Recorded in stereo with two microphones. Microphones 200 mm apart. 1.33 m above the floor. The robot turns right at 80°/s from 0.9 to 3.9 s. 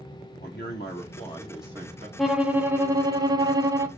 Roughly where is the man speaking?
Behind left.